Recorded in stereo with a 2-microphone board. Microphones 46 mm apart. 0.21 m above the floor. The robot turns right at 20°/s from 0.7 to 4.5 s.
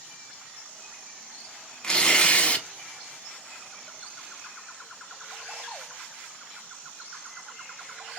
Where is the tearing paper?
20° left (ahead or behind), 0.5 m; by 2.6 s 30° left (ahead or behind), 0.5 m.